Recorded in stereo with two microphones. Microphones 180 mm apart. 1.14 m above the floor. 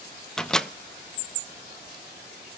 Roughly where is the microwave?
Centre.